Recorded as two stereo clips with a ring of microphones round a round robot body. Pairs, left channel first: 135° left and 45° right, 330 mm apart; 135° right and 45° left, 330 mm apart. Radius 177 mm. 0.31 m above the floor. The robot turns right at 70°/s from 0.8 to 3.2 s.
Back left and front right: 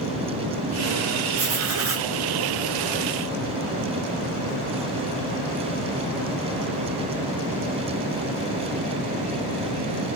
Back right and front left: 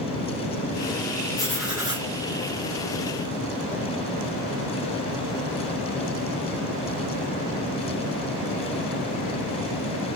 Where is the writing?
65° right, 1.6 m; by 2.1 s 15° right, 1.6 m.